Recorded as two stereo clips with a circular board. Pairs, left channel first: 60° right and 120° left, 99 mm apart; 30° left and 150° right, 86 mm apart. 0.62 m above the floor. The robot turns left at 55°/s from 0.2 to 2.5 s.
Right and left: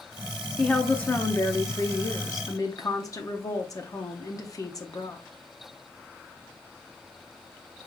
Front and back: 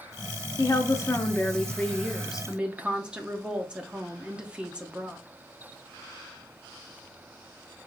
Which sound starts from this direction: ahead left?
A woman speaking, at 0.6 s.